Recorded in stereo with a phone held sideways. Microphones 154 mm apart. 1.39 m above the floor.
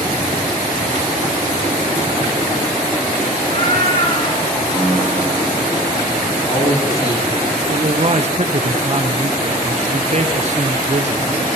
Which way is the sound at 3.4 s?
40° left (ahead or behind).